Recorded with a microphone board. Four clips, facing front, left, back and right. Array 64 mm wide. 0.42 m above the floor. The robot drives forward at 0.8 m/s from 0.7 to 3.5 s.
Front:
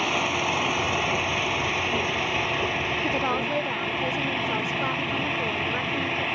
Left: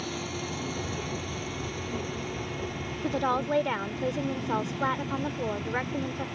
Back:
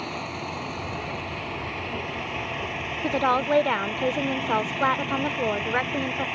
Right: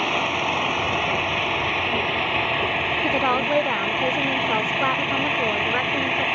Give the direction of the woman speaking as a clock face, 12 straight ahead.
4 o'clock.